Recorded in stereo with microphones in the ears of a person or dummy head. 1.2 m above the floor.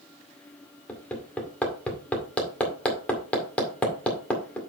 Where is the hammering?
10° left (ahead or behind), 1.9 m.